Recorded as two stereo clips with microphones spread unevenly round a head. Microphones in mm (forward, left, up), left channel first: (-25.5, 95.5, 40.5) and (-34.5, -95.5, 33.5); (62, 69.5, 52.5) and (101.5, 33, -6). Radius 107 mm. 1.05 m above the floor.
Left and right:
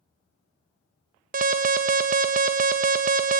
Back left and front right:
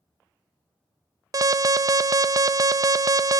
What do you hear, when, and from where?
1.3 s an alarm: 40° right, 0.5 m